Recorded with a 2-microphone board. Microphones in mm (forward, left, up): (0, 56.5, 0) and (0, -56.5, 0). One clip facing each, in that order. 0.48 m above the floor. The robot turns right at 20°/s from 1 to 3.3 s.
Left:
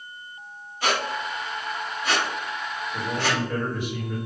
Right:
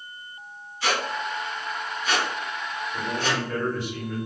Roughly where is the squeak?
Left.